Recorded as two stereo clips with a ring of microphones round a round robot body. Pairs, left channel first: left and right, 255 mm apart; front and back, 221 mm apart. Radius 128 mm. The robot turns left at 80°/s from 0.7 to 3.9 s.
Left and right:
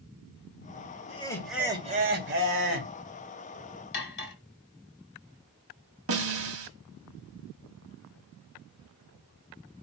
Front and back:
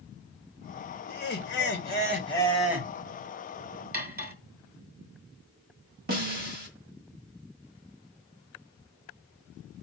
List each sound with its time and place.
1.1 s laughter: 35° left, 2 m; by 2.9 s 115° right, 2 m
3.9 s cutlery clinking: 135° left, 1.9 m
6.1 s a snare drum: 125° right, 1.7 m